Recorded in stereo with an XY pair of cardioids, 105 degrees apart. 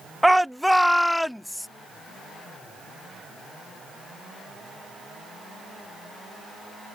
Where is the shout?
5° right; by 1.7 s 10° left.